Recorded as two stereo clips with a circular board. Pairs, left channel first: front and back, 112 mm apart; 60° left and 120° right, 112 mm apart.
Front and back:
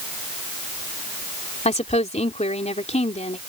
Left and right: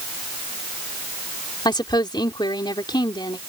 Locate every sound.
1.6 s a woman speaking: 10° left